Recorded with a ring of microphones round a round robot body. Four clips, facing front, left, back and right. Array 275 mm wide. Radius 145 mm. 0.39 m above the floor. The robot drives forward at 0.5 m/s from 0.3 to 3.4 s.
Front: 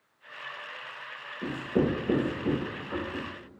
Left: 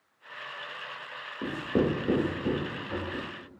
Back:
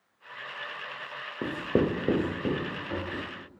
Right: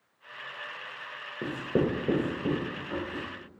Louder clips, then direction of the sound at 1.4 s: Left 1 dB, back 1 dB; 170° right.